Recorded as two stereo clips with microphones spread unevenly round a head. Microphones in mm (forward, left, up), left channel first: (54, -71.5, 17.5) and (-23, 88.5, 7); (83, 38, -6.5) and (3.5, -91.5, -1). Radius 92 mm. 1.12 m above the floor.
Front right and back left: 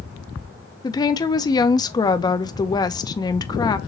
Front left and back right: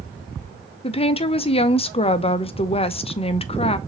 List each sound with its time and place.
0.8 s a woman speaking: 5° left, 0.5 m